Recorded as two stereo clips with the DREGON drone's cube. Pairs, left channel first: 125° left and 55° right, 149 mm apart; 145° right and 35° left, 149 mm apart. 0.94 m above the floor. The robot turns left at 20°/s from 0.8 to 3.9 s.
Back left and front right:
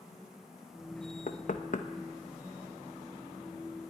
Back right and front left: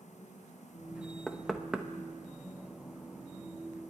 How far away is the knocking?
About 0.8 m.